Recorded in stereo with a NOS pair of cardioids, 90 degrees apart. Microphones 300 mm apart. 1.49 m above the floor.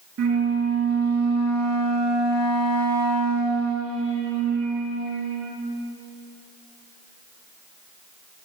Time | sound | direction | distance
0.2 | a flute | 60° right | 2.5 m